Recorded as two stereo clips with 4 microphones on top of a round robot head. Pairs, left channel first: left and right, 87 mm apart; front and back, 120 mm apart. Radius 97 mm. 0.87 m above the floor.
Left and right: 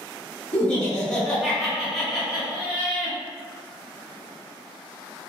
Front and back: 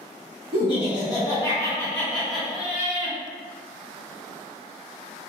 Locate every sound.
0.5 s laughter: 15° left, 1.4 m; by 3.2 s 140° right, 1.0 m